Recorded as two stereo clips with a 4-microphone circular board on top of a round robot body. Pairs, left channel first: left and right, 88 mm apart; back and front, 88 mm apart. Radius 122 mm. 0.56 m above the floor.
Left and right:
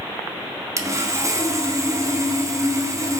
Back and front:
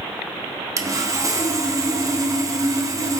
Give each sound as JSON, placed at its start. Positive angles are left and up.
{"t": 0.8, "sound": "sawing", "azimuth_deg": -45, "distance_m": 1.7}